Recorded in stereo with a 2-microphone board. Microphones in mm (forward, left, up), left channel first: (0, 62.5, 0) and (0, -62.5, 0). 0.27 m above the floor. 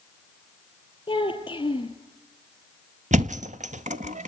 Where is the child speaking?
40° left (ahead or behind), 4.5 m.